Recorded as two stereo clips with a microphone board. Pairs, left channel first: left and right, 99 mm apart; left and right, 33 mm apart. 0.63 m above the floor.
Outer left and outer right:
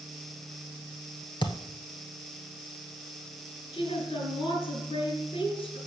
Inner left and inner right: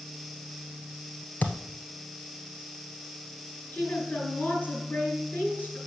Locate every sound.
1.4 s a thud: 55° left (ahead or behind), 1.1 m
3.7 s a woman speaking: 70° left (ahead or behind), 4 m